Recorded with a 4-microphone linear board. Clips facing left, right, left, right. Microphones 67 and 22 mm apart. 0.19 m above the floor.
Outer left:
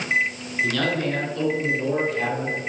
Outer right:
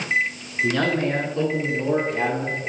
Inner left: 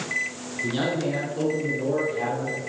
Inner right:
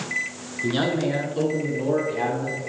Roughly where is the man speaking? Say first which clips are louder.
Outer right 2 dB, inner right 3 dB; right.